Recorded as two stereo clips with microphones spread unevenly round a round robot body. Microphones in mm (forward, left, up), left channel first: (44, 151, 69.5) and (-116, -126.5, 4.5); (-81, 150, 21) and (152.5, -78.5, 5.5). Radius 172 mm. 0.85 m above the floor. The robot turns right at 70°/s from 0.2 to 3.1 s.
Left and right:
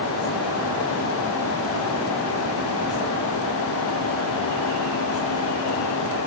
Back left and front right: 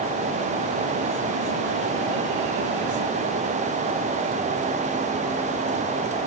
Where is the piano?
No piano in this recording.